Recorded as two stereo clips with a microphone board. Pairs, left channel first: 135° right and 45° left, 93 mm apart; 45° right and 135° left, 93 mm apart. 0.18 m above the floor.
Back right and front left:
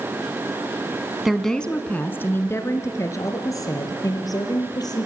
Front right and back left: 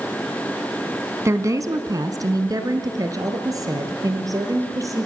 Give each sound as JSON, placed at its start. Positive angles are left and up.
{"t": 1.2, "sound": "a woman speaking", "azimuth_deg": 130, "distance_m": 1.4}